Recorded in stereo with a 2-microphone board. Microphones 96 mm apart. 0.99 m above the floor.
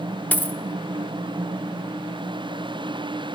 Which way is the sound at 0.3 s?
15° left (ahead or behind).